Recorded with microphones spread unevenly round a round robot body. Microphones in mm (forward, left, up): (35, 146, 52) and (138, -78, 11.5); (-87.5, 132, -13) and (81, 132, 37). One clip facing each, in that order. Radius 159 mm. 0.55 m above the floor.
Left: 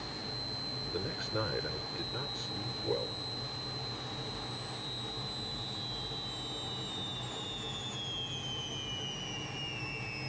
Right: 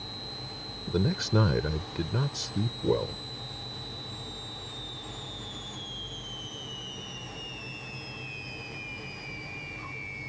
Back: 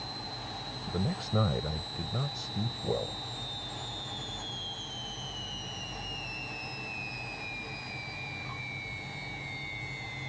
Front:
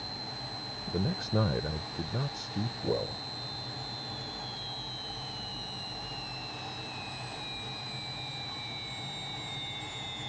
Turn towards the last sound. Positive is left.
turn(degrees=-90)